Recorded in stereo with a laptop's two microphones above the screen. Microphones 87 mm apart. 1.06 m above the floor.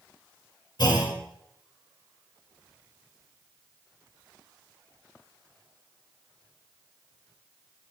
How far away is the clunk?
About 4 m.